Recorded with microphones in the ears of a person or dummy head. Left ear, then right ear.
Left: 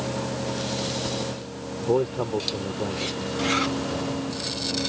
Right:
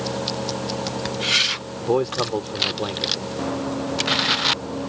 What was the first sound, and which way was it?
A man speaking, 60° right (ahead or behind).